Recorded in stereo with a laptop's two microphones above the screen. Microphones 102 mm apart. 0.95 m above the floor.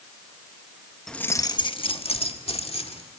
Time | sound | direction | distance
1.1 | keys jangling | 5° left (ahead or behind) | 0.8 m